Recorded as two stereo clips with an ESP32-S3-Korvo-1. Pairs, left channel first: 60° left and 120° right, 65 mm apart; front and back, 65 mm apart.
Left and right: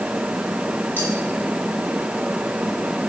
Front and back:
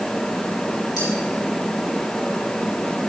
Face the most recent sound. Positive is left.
turn(degrees=5)